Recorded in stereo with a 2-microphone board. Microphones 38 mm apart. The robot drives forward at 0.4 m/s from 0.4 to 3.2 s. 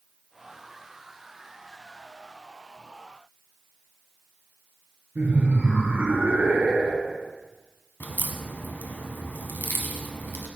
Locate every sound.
5.2 s laughter: 65° right (ahead or behind), 3.5 m
8.0 s a crack: 60° left (ahead or behind), 1.1 m